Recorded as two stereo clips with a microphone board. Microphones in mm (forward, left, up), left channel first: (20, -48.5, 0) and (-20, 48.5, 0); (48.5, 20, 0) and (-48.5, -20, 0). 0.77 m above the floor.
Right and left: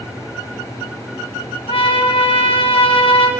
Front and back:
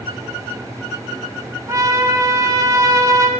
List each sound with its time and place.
1.7 s a trumpet: 100° right, 1.1 m